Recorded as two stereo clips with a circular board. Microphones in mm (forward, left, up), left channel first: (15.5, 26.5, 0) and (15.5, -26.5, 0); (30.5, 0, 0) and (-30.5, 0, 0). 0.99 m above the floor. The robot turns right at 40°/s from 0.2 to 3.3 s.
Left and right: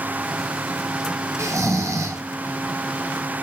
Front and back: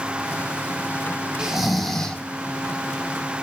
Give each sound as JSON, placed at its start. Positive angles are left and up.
{"t": 1.4, "sound": "snoring", "azimuth_deg": -105, "distance_m": 1.3}